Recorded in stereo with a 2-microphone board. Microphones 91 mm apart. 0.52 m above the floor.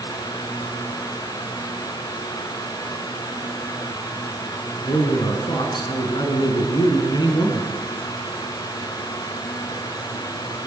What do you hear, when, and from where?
4.8 s a man speaking: 65° left (ahead or behind), 6.5 m; by 7.7 s 55° left (ahead or behind), 5.5 m